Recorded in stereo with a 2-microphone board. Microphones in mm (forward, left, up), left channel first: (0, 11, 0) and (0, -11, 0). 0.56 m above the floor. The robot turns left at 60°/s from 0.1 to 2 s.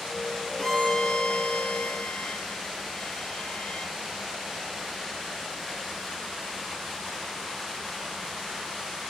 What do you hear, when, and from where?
0.6 s a violin: 175° left, 3 m; by 3.9 s 90° left, 3 m